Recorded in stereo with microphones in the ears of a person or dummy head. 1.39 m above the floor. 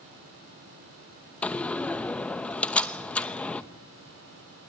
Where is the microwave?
I don't hear a microwave.